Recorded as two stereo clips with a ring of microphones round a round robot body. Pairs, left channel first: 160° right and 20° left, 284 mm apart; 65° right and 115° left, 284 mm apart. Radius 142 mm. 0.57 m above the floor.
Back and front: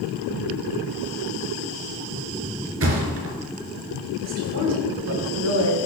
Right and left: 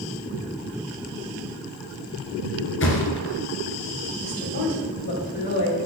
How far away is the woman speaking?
About 3.5 m.